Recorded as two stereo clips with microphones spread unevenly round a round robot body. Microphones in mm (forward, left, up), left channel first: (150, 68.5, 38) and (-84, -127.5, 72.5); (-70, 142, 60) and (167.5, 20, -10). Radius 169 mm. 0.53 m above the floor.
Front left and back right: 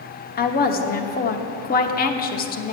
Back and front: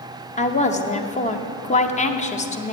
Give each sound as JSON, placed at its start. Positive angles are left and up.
{"t": 0.4, "sound": "a woman speaking", "azimuth_deg": 85, "distance_m": 1.0}